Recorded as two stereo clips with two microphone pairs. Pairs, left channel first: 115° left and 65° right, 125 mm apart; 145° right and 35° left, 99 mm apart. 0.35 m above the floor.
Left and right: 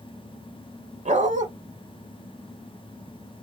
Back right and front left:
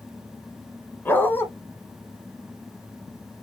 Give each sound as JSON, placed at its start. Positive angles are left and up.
{"t": 1.1, "sound": "a dog barking", "azimuth_deg": -75, "distance_m": 1.0}